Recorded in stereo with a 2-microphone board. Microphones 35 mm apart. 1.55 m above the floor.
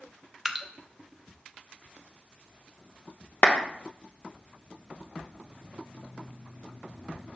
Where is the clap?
60° left (ahead or behind), 1.0 m.